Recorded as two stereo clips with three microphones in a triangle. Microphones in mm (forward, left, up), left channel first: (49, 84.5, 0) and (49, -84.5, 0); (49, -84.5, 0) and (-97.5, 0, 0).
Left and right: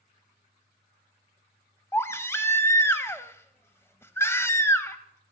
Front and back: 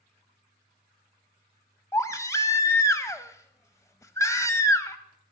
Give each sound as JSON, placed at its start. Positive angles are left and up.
{"t": 1.9, "sound": "a baby crying", "azimuth_deg": 25, "distance_m": 0.7}